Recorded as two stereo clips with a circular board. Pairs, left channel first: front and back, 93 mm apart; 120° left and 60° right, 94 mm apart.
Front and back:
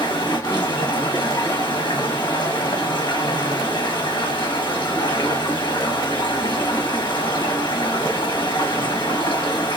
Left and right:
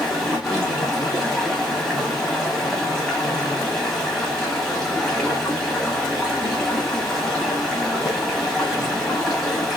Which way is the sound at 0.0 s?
35° left.